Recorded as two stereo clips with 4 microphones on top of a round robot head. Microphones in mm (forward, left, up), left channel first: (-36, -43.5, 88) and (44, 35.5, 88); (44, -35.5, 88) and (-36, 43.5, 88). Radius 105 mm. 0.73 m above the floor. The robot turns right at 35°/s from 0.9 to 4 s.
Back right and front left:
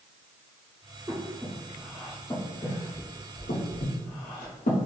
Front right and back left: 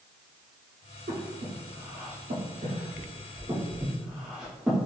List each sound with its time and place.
1.1 s breathing: 115° left, 0.6 m; by 4.8 s 145° right, 0.6 m